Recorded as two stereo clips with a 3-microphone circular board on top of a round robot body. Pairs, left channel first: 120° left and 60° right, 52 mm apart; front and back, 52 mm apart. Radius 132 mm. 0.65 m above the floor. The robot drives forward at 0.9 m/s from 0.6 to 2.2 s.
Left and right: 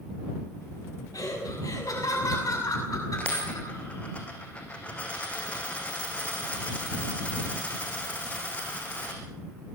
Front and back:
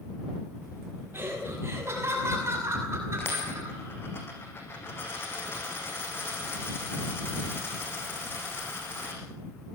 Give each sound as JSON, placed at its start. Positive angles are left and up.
{"t": 1.1, "sound": "laughter", "azimuth_deg": 130, "distance_m": 6.0}
{"t": 3.2, "sound": "a dropped coin", "azimuth_deg": 55, "distance_m": 4.5}